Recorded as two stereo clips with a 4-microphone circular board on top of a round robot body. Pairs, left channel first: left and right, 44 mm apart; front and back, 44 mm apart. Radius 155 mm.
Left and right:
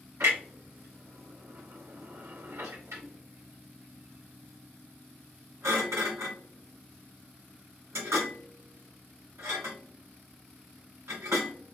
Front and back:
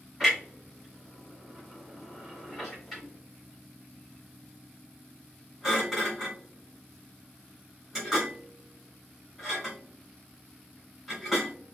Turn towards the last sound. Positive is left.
turn(degrees=-85)